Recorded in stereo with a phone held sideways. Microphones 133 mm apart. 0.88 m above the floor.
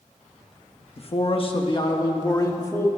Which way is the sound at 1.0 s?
50° left (ahead or behind).